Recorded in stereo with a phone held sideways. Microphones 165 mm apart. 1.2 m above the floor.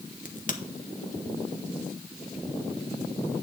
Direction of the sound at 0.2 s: 55° left (ahead or behind).